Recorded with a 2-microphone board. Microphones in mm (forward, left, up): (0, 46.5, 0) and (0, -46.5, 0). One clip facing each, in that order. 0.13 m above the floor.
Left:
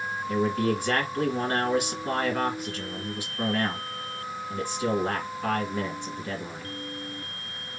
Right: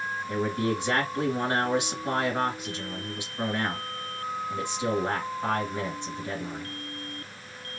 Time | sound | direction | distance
0.3 | a man speaking | 20° right (ahead or behind) | 1.6 m